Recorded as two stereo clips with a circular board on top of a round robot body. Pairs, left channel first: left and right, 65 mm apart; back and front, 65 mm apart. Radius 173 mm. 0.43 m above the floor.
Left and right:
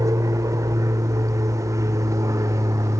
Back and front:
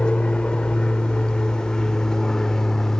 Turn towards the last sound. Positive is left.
turn(degrees=-100)